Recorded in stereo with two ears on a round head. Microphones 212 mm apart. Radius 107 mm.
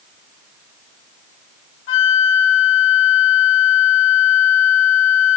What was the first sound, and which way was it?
A flute, 55° left (ahead or behind).